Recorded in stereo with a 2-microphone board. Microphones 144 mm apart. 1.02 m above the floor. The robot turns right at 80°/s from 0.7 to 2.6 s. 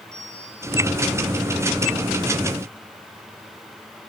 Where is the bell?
20° right (ahead or behind), 9.5 m; by 0.9 s 5° right (ahead or behind), 9.5 m.